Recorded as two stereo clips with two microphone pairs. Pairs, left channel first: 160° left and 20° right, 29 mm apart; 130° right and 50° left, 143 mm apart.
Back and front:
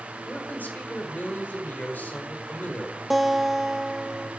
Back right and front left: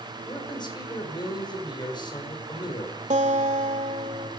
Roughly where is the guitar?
Left.